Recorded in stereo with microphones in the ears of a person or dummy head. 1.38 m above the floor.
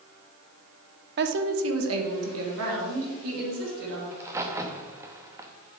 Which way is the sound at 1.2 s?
55° right (ahead or behind).